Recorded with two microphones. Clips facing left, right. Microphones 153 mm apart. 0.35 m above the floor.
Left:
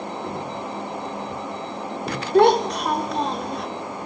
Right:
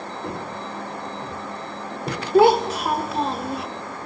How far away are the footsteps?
About 4.5 m.